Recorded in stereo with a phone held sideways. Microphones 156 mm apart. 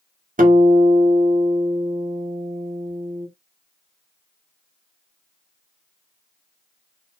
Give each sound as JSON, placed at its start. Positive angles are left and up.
{"t": 0.4, "sound": "a guitar", "side_deg": -60, "distance_m": 1.0}